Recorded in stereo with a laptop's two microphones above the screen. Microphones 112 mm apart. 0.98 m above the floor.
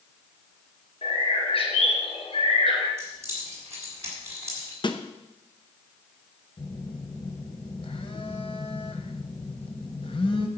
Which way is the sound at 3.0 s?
25° right (ahead or behind).